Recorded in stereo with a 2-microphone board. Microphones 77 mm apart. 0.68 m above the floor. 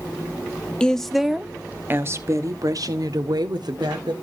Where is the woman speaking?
10° left (ahead or behind), 0.8 m; by 4.1 s 65° right (ahead or behind), 1.6 m.